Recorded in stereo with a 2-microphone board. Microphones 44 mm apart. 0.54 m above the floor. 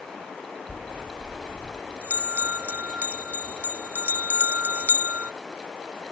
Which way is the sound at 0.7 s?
40° right (ahead or behind).